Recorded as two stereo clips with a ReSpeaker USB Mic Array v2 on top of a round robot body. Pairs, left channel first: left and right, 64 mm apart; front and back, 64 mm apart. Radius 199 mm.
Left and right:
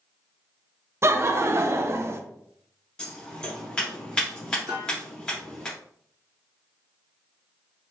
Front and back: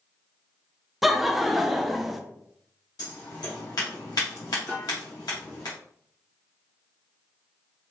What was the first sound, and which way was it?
Laughter, 95° right.